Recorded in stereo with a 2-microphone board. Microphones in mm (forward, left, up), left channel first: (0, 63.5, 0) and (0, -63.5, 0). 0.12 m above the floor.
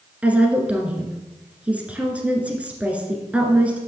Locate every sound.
0.2 s a woman speaking: 10° right (ahead or behind), 1.7 m